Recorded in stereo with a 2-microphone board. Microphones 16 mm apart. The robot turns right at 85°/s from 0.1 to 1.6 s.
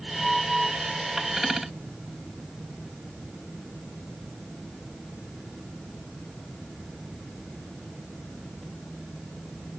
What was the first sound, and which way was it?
Only background noise.